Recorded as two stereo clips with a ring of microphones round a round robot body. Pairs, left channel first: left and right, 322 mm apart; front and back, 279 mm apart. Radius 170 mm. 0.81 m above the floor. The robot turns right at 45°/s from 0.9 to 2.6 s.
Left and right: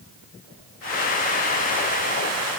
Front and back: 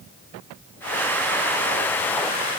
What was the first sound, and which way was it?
Only background noise.